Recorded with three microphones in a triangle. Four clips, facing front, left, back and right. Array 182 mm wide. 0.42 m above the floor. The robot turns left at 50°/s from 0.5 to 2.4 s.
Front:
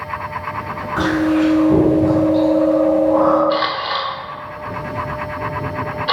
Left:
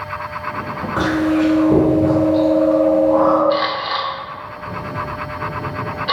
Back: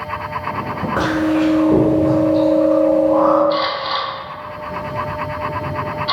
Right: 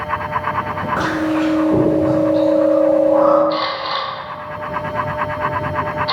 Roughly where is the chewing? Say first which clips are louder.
Left 3 dB, front 1 dB; behind.